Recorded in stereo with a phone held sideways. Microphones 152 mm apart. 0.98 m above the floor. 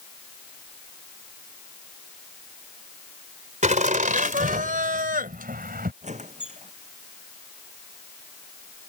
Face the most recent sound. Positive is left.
turn(degrees=-50)  # may be behind; listen again after turning